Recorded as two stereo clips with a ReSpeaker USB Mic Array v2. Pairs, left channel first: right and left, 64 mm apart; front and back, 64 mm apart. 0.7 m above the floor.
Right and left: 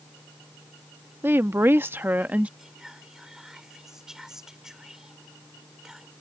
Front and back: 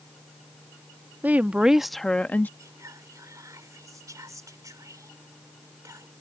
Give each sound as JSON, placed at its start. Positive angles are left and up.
{"t": 1.2, "sound": "a woman speaking", "azimuth_deg": 130}
{"t": 2.6, "sound": "whispering", "azimuth_deg": 170}